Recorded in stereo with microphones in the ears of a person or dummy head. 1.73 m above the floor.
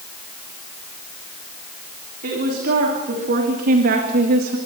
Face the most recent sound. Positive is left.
turn(degrees=-50)  # may be behind; listen again after turning